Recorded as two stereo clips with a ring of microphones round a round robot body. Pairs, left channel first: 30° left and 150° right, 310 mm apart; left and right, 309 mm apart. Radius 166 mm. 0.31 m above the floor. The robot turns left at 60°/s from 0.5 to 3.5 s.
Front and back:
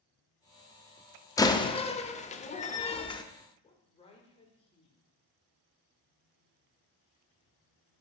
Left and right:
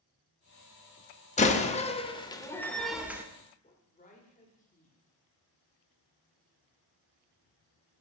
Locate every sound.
1.4 s a door slam: 90° left, 0.7 m; by 3.2 s 20° right, 0.7 m
3.6 s a woman speaking: 75° left, 1.5 m